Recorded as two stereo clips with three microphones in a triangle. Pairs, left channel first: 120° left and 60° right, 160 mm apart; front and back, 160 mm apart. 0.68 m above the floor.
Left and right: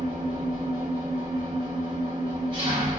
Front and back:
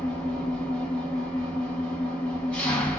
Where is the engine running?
80° right, 0.9 m.